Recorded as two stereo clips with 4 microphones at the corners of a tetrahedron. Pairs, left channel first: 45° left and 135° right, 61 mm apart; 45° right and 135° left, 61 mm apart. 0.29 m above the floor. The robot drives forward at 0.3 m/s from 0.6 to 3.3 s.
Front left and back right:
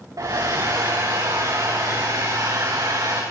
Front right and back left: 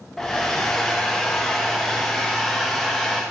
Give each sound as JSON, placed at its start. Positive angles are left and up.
{"t": 0.2, "sound": "a hair dryer", "azimuth_deg": -130, "distance_m": 5.5}